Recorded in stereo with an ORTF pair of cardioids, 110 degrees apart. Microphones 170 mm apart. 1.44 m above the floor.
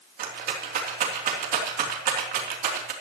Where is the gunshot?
No gunshot in this recording.